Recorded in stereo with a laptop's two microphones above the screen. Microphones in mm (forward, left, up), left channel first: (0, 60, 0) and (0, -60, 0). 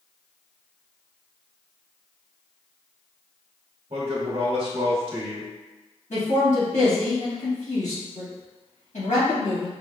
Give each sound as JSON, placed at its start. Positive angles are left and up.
{"t": 3.9, "sound": "a man speaking", "side_deg": -50, "distance_m": 1.3}
{"t": 6.1, "sound": "a man speaking", "side_deg": 85, "distance_m": 1.7}